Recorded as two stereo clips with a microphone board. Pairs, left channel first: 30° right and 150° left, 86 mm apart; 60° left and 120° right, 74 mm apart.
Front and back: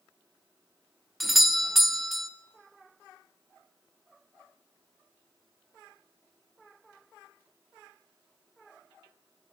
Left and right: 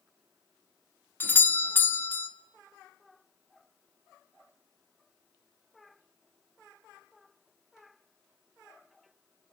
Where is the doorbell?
65° left, 1.0 m.